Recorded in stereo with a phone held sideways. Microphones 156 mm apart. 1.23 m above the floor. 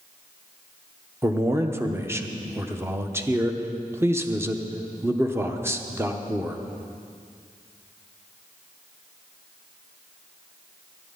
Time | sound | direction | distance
1.2 | a man speaking | 15° right (ahead or behind) | 0.9 m